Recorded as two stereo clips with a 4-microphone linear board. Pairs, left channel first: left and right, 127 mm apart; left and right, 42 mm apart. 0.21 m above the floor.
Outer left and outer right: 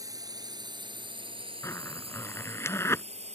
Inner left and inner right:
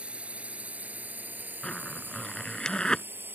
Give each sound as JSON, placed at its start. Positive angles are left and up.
{"t": 0.0, "sound": "a drone", "side_deg": -30}
{"t": 1.6, "sound": "a zipper", "side_deg": 20}